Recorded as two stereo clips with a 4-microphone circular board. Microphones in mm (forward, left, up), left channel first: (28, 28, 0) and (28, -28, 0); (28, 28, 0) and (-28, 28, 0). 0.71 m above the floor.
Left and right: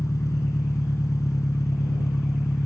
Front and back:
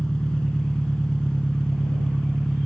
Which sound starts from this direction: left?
An engine running, at 0.0 s.